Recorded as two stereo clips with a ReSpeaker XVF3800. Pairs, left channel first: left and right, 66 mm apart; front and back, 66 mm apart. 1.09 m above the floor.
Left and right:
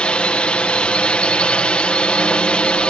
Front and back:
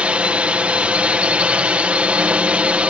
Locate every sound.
0.0 s a drone: 140° left